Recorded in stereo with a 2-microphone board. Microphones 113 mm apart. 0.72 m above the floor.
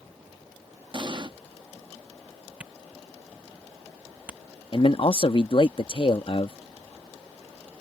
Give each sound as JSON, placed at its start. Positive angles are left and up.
{"t": 0.9, "sound": "an explosion", "side_deg": -40}
{"t": 2.6, "sound": "a camera shutter", "side_deg": -10}
{"t": 4.7, "sound": "a man speaking", "side_deg": 50}